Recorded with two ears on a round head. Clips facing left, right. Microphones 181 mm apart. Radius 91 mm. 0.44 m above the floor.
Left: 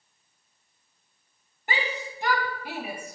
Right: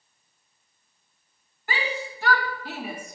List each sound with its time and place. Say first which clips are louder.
1.7 s a shout: right 1 dB; 20° left (ahead or behind), 2.5 m; by 3.2 s 5° left (ahead or behind), 1.8 m